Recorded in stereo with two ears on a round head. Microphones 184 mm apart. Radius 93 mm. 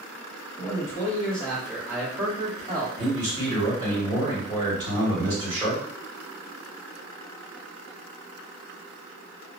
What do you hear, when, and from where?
0.6 s a man speaking: 20° left (ahead or behind), 1.4 m; by 2.9 s 25° right (ahead or behind), 1.3 m
3.0 s a man speaking: 20° right (ahead or behind), 1.7 m